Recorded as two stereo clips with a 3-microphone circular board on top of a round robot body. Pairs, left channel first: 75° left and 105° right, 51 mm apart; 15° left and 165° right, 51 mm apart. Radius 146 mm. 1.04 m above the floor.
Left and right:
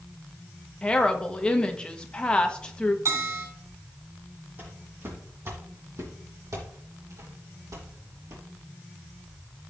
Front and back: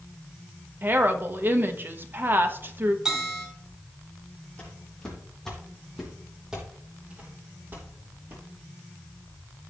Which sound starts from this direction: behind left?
A woman speaking, at 0.8 s.